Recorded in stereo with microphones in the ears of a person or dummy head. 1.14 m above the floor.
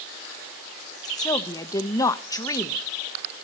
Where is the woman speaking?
20° left (ahead or behind), 1.0 m.